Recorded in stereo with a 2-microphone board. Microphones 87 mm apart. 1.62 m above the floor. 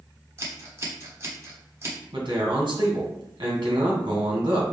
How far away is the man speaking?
About 1.8 m.